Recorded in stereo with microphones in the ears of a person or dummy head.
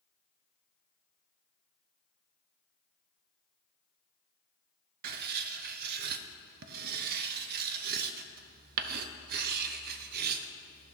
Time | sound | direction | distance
5.0 | writing | 55° right (ahead or behind) | 0.6 m